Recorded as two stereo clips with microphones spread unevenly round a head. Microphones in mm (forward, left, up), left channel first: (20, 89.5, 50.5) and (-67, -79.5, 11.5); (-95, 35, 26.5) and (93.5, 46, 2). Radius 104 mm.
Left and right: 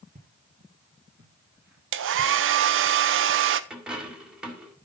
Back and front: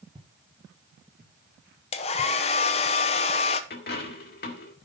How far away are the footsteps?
About 1.7 m.